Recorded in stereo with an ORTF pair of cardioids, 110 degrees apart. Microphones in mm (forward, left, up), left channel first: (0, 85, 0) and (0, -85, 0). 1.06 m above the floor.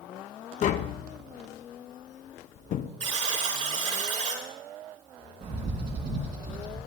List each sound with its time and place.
0.6 s tapping: 50° left, 0.7 m
3.0 s a buzzer: 45° right, 5.5 m
5.4 s a bird: 60° right, 4.5 m